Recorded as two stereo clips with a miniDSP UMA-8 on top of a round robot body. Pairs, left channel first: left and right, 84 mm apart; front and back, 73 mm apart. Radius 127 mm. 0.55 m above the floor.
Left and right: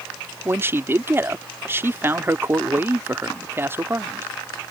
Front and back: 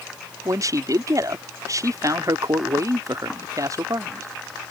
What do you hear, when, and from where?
0.5 s a man speaking: 150° right